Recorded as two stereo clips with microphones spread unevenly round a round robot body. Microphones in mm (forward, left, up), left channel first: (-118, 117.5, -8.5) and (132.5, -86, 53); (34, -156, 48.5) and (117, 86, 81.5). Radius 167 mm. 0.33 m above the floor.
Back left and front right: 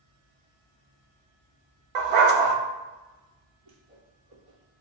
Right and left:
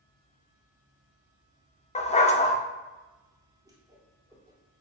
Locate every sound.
1.9 s a dog barking: 45° right, 0.8 m
3.6 s a whoosh: 5° right, 1.9 m